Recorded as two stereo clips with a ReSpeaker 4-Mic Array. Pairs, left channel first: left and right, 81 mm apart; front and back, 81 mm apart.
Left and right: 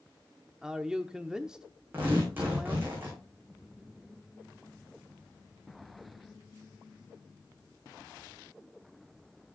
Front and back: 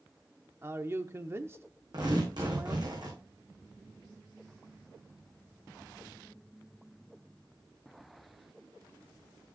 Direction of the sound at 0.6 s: 165° right.